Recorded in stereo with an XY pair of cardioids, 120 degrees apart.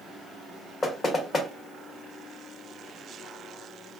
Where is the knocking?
30° left, 0.8 m.